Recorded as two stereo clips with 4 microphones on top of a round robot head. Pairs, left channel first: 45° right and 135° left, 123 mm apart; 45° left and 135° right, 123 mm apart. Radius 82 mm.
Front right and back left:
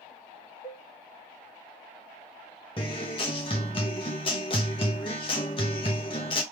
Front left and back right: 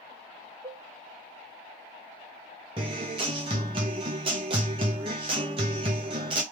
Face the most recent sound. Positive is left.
turn(degrees=-90)